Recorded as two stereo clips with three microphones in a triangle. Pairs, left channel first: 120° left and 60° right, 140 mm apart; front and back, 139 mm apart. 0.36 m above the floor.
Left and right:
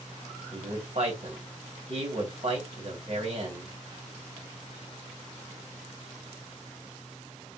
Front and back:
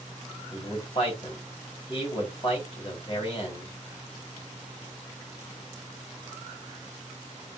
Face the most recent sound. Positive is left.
turn(degrees=-40)